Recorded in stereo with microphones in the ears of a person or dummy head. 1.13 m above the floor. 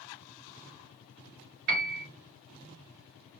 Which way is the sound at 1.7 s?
45° right (ahead or behind).